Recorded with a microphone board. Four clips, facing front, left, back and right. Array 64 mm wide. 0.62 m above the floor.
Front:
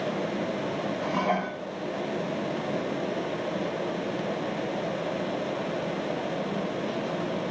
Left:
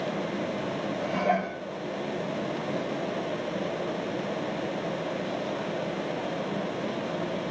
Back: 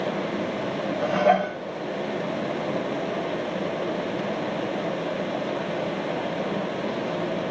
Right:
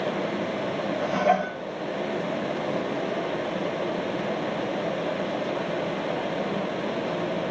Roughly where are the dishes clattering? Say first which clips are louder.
Right 4 dB, back 8 dB; behind right.